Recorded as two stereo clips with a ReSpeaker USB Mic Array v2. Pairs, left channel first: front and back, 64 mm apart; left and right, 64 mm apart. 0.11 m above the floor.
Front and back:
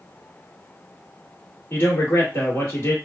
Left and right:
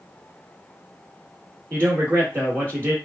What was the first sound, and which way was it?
A man speaking, 45° right.